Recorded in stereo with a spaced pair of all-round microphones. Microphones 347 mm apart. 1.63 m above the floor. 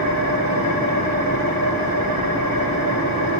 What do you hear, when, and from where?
0.0 s an engine running: 70° right (ahead or behind), 2 m